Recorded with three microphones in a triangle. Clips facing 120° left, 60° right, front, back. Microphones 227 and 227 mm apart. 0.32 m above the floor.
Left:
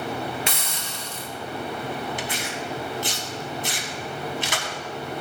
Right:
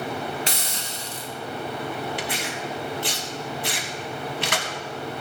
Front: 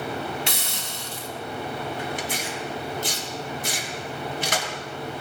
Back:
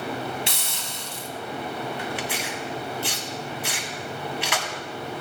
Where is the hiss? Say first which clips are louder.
Right 1 dB, front 2 dB; 10° right, 1.7 m.